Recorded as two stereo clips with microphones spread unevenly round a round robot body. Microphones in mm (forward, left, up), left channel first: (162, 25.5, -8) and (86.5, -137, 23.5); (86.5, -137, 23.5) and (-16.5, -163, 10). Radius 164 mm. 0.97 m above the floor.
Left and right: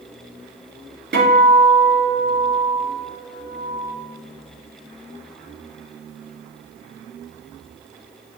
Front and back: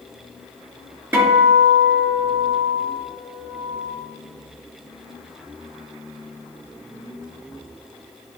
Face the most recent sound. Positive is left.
turn(degrees=-95)